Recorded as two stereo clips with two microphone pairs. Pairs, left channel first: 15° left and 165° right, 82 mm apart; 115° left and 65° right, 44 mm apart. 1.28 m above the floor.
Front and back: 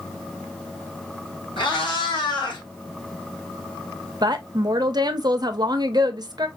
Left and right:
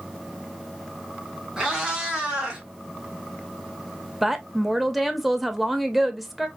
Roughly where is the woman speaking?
Behind right.